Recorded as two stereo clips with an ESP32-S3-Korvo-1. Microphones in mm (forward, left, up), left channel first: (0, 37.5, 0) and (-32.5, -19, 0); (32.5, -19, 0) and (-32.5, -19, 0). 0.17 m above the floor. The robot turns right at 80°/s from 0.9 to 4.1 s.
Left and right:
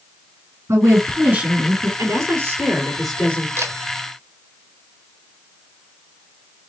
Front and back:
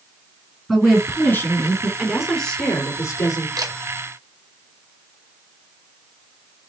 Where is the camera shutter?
170° right, 1.2 m; by 3.8 s 155° right, 1.2 m.